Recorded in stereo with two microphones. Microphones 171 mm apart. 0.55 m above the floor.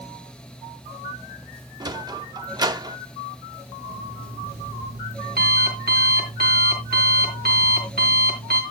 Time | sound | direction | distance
1.8 | a sliding door | 25° right (ahead or behind) | 0.6 m
3.9 | an alarm clock | 65° right (ahead or behind) | 3 m